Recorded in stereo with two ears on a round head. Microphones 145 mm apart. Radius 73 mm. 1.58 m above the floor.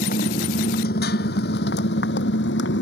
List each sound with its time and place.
0.0 s a motorcycle: 55° left (ahead or behind); by 2.8 s 85° left